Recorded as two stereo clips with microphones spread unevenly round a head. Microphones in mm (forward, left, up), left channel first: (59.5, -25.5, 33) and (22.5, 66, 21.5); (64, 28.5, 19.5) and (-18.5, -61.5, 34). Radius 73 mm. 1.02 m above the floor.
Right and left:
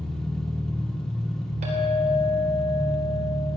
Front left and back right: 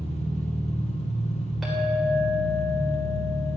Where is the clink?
140° left, 2.5 m.